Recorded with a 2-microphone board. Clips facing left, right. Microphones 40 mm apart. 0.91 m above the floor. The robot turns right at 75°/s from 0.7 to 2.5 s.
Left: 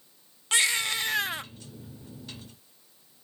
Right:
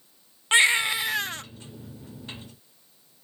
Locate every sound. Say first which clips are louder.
0.5 s a baby crying: right 6 dB; 35° right, 0.5 m; by 1.4 s 20° left, 0.5 m